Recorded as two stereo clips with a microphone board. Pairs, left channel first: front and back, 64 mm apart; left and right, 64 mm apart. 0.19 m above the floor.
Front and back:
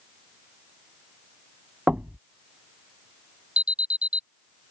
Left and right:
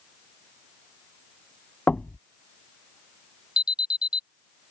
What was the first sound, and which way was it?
Knocking, 140° left.